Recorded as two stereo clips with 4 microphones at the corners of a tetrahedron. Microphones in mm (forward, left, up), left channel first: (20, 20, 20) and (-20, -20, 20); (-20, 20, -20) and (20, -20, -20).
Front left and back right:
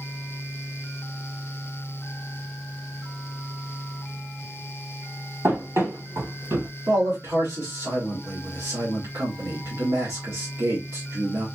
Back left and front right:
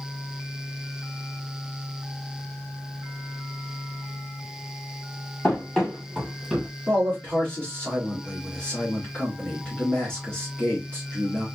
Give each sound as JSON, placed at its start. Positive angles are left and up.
{"t": 5.4, "sound": "running footsteps", "azimuth_deg": -155, "distance_m": 2.5}
{"t": 6.9, "sound": "a man speaking", "azimuth_deg": -155, "distance_m": 2.0}